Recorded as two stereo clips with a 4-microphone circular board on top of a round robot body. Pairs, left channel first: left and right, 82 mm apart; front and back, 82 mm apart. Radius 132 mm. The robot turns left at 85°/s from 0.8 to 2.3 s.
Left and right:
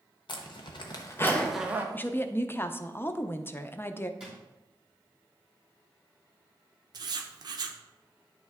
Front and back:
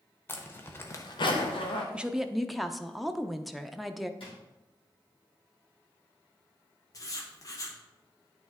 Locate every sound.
0.3 s a zipper: 60° left, 0.7 m; by 1.8 s 25° right, 0.7 m
1.9 s a woman speaking: 120° left, 0.6 m; by 4.1 s 90° left, 0.6 m
4.2 s a drawer: 10° right, 2.5 m
6.9 s writing: 50° right, 0.7 m